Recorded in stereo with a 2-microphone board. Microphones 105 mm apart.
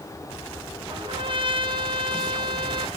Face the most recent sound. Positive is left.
turn(degrees=-50)  # may be behind; listen again after turning